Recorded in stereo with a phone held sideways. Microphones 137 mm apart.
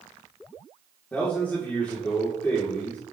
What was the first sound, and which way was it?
A man speaking, 10° left (ahead or behind).